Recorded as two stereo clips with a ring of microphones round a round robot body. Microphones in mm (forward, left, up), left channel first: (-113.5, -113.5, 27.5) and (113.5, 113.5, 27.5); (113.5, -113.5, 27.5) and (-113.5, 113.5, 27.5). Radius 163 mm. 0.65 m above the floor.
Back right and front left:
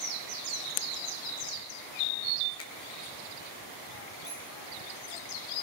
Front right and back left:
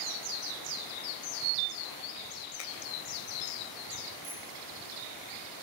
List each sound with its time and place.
2.6 s a finger snap: 85° right, 3.5 m
4.2 s a bicycle bell: 145° left, 8.5 m